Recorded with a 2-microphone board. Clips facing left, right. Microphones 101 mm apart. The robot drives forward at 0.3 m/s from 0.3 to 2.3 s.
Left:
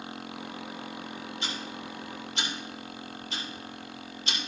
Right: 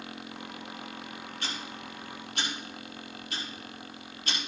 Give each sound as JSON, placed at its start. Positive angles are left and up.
{"t": 1.4, "sound": "ticking", "side_deg": -55, "distance_m": 4.0}